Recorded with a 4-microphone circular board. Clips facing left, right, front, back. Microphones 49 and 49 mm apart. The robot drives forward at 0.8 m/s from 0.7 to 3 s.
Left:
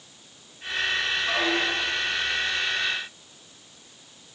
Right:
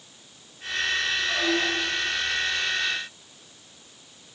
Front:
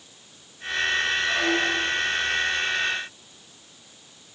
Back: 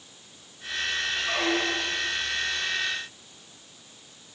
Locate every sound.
1.2 s a squeak: 125° left, 2.5 m; by 2.1 s 135° left, 3 m